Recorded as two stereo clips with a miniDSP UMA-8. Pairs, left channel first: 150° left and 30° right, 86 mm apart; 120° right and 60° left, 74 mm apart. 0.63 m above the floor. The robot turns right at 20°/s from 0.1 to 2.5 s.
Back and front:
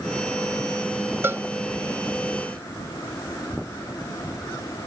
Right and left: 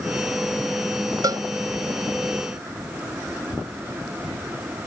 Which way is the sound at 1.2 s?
30° left.